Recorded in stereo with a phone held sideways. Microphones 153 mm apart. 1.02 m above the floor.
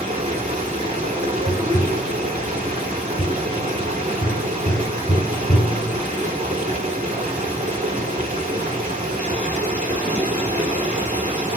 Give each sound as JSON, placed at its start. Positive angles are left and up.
{"t": 0.0, "sound": "running water", "side_deg": -55, "distance_m": 2.0}
{"t": 1.5, "sound": "tapping", "side_deg": 45, "distance_m": 1.2}